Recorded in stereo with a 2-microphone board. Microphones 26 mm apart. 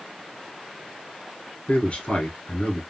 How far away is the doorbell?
No doorbell in this recording.